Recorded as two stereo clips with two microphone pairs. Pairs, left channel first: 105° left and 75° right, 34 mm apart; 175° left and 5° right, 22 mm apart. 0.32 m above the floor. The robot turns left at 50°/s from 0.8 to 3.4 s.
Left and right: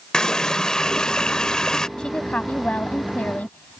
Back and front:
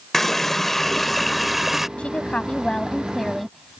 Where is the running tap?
130° left; by 1.9 s 75° left.